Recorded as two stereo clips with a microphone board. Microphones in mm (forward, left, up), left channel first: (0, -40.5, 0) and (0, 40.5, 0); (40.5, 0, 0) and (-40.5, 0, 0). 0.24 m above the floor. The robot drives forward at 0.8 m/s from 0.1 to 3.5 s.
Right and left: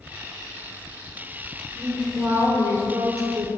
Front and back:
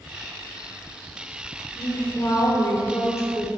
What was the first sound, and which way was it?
A woman speaking, 35° left.